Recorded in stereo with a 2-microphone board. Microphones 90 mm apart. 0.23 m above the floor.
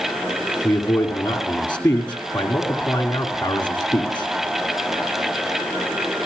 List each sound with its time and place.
0.6 s a man speaking: 20° left (ahead or behind), 2 m